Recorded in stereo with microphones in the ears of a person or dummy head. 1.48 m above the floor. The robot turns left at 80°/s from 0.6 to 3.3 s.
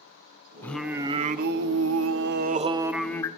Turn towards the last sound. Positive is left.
turn(degrees=155)